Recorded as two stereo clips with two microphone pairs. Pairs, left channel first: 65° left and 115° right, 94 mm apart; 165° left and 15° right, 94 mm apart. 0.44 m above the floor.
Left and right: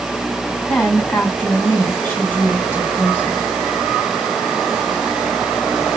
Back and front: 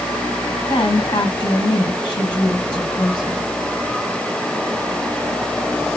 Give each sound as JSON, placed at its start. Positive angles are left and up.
{"t": 0.7, "sound": "a woman speaking", "azimuth_deg": 135, "distance_m": 3.5}